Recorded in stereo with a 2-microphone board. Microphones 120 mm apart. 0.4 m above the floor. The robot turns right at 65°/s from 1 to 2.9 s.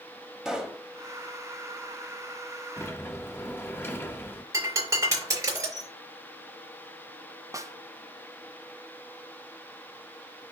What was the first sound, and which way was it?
A pop, 5° right (ahead or behind).